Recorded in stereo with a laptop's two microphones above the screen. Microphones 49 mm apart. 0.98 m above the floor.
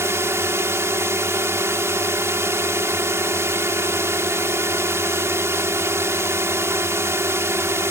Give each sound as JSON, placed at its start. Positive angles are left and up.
{"t": 0.0, "sound": "a drone", "side_deg": -70}